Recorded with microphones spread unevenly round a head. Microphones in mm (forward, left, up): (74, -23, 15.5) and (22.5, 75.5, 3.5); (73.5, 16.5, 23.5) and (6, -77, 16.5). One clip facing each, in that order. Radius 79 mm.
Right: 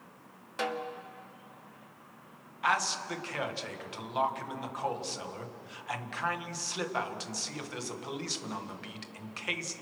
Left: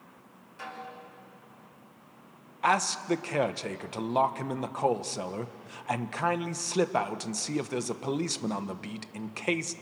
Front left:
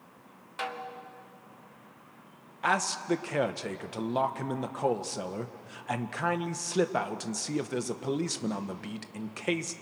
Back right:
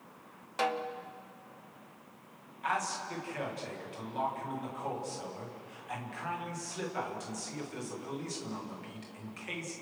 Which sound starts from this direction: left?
A man speaking, at 2.6 s.